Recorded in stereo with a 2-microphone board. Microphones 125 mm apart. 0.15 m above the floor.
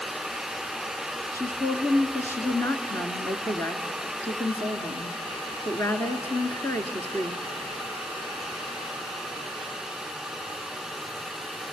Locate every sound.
1.3 s a woman speaking: 20° left (ahead or behind), 1.5 m